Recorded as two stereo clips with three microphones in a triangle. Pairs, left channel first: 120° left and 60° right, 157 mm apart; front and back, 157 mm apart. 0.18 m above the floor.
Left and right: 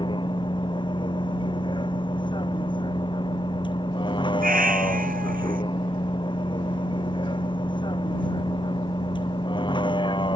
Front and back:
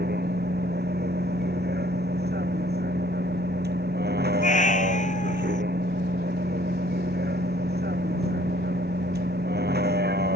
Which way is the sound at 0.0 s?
Straight behind.